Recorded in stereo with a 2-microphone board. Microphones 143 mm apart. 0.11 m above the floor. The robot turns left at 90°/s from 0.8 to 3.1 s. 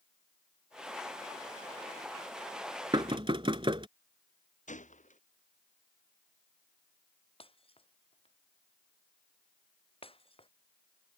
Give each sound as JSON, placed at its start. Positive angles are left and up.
{"t": 2.9, "sound": "knocking", "side_deg": -30}
{"t": 4.7, "sound": "a gunshot", "side_deg": 60}
{"t": 7.4, "sound": "breaking glass", "side_deg": 40}